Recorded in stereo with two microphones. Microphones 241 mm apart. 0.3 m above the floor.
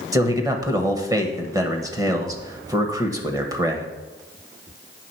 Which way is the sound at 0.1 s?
15° right (ahead or behind).